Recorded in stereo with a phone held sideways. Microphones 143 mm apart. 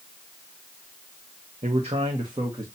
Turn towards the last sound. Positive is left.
turn(degrees=-30)  # may be behind; listen again after turning